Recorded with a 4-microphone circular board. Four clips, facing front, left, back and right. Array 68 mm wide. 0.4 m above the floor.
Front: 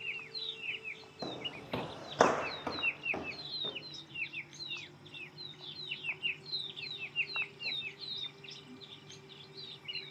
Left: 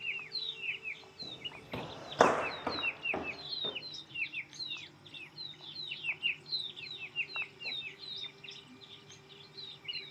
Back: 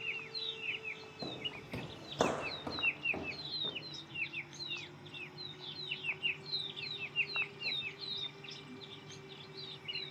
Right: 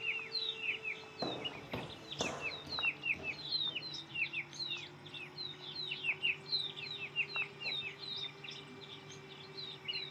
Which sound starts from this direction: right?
Footsteps, at 1.2 s.